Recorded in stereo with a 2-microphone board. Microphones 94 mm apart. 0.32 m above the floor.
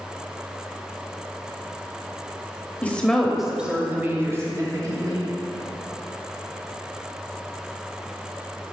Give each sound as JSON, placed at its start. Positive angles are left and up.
{"t": 2.8, "sound": "a woman speaking", "side_deg": 15, "distance_m": 1.0}